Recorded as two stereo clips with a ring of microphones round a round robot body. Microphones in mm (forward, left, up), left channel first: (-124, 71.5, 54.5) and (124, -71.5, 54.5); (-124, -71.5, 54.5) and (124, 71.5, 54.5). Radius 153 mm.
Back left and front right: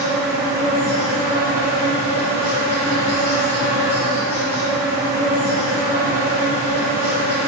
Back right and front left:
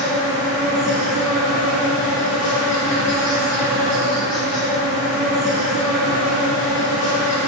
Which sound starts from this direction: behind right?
An insect, at 0.0 s.